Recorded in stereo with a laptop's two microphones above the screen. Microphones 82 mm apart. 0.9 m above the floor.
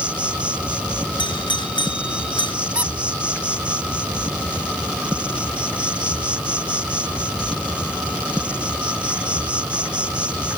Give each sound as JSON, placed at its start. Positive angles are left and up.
{"t": 0.0, "sound": "an insect", "side_deg": -15}
{"t": 1.2, "sound": "a doorbell", "side_deg": 75}
{"t": 2.8, "sound": "a squeak", "side_deg": -20}